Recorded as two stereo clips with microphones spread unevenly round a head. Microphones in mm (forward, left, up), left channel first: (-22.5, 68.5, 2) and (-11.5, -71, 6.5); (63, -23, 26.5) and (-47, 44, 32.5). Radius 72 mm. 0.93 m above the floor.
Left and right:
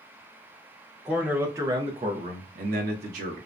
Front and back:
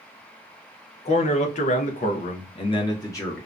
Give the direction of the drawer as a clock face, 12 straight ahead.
No drawer in this recording.